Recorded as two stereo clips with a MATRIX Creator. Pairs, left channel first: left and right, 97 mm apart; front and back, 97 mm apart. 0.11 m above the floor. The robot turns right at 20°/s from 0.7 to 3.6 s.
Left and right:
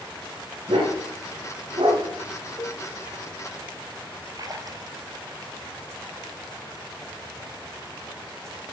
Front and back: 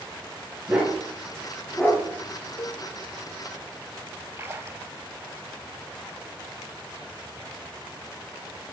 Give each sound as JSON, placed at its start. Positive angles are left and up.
{"t": 0.7, "sound": "a dog barking", "azimuth_deg": -105, "distance_m": 7.5}
{"t": 2.6, "sound": "a cowbell", "azimuth_deg": 40, "distance_m": 1.2}
{"t": 4.4, "sound": "a splash", "azimuth_deg": -125, "distance_m": 1.4}